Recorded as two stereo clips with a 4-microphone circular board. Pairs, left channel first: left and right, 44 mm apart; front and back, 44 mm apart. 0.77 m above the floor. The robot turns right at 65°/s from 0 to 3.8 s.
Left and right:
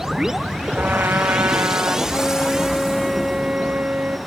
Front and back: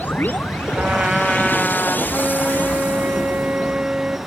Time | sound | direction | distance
0.8 | a trumpet | 135° right | 1.9 m
2.1 | a flute | 120° left | 0.8 m